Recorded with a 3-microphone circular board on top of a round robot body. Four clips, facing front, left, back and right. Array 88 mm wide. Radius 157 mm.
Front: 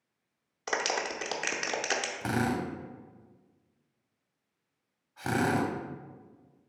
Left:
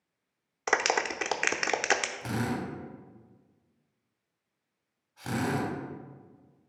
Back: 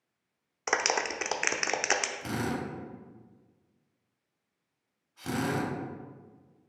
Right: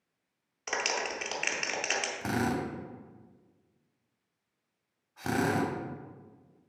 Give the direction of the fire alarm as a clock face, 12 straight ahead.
I don't hear a fire alarm.